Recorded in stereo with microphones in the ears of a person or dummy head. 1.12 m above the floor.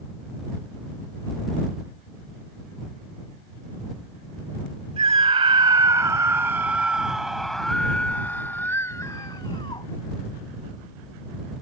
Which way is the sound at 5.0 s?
30° right (ahead or behind).